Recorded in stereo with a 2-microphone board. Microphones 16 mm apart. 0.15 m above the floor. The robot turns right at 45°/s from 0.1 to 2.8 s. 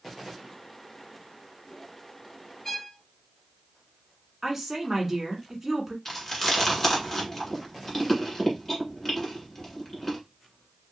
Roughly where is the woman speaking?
Centre.